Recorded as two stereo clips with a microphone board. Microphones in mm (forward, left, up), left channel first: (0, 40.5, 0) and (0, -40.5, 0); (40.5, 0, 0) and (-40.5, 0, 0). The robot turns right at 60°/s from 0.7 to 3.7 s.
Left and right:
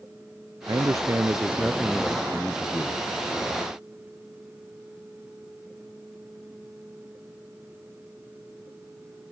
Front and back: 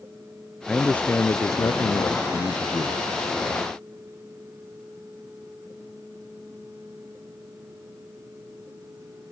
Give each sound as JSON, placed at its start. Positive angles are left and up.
{"t": 0.7, "sound": "a man speaking", "azimuth_deg": -80}